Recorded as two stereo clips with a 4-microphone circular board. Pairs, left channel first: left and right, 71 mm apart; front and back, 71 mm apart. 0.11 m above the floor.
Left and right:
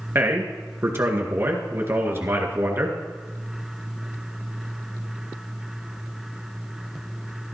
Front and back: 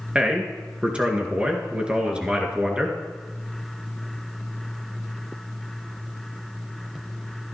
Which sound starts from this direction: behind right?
A man speaking, at 0.1 s.